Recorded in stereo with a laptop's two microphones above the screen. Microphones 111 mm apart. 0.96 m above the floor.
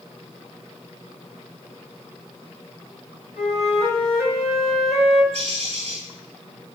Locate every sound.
3.4 s a flute: 70° left (ahead or behind), 3.5 m
5.3 s a bird: 55° right (ahead or behind), 7.5 m